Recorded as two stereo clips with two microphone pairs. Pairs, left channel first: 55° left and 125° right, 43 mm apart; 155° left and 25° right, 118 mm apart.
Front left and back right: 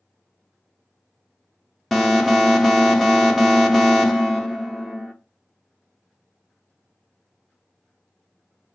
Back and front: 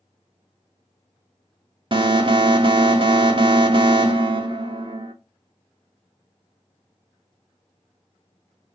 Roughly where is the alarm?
Ahead right.